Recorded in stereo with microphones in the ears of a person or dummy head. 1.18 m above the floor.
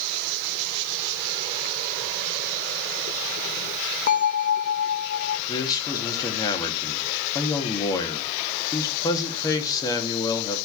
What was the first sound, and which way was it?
A bell, 45° left (ahead or behind).